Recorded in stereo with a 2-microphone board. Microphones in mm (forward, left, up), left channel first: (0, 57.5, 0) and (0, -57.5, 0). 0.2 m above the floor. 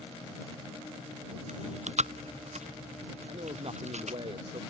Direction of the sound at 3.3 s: 55° right (ahead or behind).